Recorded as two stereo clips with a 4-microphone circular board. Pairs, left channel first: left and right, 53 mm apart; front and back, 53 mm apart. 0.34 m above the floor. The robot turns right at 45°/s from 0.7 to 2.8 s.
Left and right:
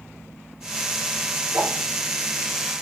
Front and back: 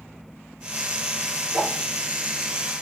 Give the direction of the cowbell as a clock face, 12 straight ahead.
No cowbell in this recording.